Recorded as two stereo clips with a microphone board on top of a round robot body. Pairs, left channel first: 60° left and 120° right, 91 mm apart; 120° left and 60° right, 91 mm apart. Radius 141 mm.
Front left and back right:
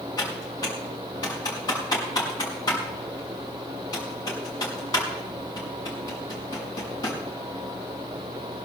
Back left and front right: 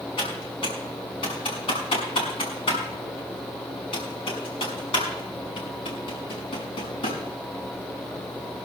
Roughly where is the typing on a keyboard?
Left.